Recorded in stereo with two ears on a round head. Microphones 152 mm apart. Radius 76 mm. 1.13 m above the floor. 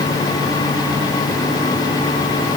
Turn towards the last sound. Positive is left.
No sound to turn to.